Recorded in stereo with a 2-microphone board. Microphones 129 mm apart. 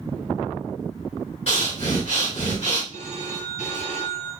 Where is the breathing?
55° left (ahead or behind), 2.5 m.